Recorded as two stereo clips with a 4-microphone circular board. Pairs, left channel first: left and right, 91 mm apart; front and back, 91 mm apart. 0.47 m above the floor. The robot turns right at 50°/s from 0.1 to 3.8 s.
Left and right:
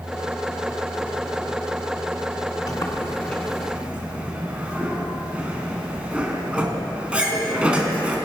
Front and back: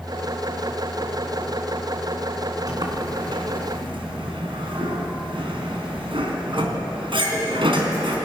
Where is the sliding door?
135° left, 4 m; by 8.2 s 170° right, 4 m.